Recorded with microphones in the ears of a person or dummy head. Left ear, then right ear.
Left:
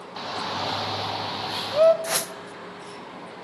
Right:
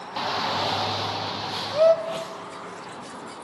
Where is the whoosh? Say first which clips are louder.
Left 3 dB; 65° left (ahead or behind), 0.8 m.